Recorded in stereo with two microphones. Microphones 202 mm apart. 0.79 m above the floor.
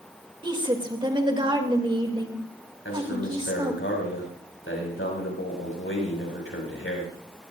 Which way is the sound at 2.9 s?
80° left.